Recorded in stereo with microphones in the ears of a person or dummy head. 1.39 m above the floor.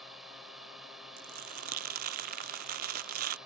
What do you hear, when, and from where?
0.0 s a drone: centre (ahead or behind)
1.2 s crumpling: 45° right (ahead or behind)